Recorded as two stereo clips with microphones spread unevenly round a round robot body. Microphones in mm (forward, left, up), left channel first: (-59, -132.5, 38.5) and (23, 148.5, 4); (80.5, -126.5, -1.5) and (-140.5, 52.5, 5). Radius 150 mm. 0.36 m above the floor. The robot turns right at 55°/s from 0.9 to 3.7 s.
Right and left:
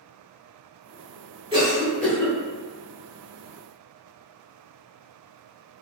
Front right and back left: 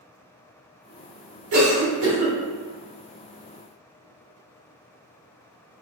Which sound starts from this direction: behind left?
A cough, at 1.5 s.